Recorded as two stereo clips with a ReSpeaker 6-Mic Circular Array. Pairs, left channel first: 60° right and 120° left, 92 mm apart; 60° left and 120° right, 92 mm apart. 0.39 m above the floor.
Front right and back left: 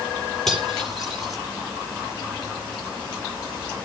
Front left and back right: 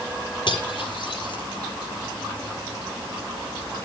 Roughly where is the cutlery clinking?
Ahead left.